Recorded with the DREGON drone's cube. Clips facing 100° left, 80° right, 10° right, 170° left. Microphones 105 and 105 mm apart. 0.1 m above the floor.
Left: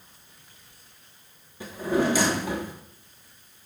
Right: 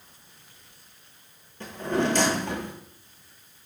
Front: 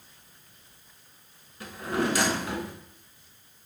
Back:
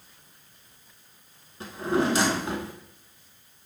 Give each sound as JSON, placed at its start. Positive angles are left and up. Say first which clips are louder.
{"t": 1.6, "sound": "a drawer", "louder": "left 2 dB, back 4 dB", "azimuth_deg": 170, "distance_m": 0.6}